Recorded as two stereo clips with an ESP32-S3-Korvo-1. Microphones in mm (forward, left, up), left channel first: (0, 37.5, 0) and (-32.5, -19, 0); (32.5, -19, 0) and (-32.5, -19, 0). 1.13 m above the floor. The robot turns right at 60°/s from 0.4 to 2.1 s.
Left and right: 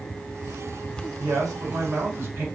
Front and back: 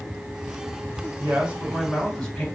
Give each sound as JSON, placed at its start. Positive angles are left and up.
{"t": 1.2, "sound": "a man speaking", "azimuth_deg": -130, "distance_m": 1.2}